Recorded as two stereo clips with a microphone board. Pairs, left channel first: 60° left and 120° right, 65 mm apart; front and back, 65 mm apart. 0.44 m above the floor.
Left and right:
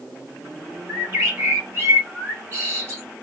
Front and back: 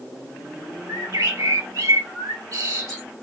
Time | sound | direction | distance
0.9 | a bird | 170° right | 2 m